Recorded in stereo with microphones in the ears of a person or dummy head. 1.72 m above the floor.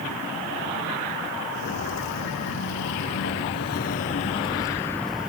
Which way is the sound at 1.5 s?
60° left (ahead or behind).